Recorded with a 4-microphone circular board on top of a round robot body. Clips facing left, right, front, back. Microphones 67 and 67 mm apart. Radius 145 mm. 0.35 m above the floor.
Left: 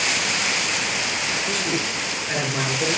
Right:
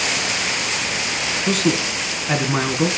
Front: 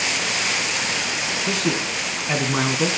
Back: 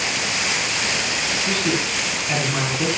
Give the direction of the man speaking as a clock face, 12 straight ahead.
2 o'clock.